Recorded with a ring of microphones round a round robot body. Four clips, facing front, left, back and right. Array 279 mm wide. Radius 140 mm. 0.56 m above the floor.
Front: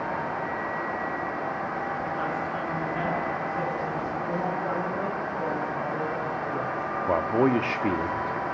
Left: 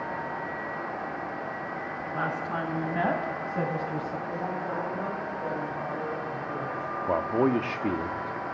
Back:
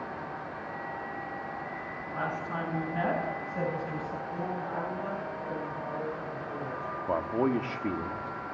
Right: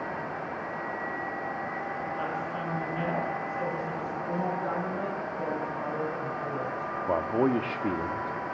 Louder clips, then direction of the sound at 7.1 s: Left 1 dB, front 5 dB; 5° left.